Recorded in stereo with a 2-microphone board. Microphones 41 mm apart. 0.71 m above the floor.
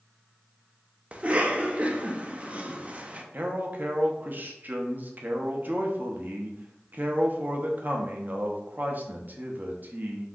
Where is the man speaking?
50° right (ahead or behind), 0.7 m.